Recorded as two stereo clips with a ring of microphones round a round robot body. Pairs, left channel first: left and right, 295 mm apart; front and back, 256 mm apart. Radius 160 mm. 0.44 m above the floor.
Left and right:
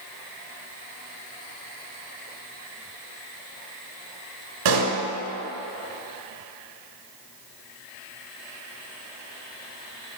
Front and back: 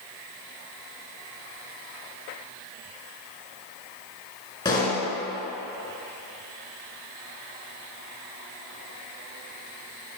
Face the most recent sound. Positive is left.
turn(degrees=-75)